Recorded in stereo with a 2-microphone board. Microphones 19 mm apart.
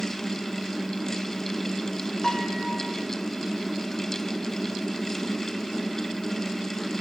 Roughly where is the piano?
Left.